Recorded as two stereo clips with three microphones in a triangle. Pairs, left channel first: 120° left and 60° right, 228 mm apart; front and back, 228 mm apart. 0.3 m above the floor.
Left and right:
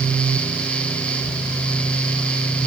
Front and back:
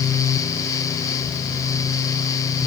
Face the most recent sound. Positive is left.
No sound to turn to.